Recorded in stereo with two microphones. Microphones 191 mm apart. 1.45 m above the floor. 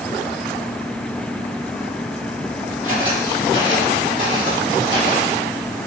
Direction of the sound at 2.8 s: 25° left (ahead or behind).